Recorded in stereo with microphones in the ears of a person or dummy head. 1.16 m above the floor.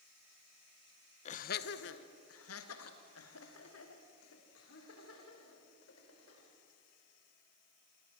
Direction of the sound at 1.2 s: 35° left (ahead or behind).